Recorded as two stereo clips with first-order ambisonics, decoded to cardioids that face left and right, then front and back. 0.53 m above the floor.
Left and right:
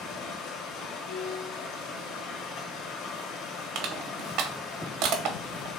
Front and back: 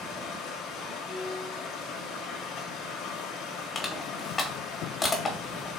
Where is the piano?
90° left, 1.7 m.